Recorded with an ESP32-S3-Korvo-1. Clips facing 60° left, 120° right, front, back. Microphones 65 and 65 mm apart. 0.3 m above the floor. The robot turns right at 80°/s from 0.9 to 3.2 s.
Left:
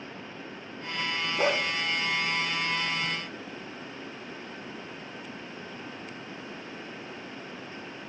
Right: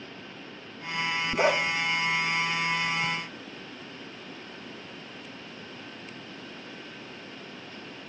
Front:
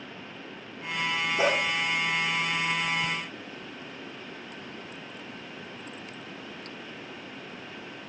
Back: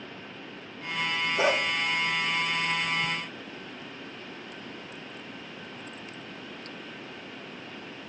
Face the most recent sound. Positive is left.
turn(degrees=25)